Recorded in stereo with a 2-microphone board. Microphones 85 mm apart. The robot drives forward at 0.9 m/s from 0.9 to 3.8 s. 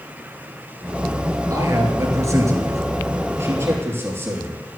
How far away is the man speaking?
About 2 m.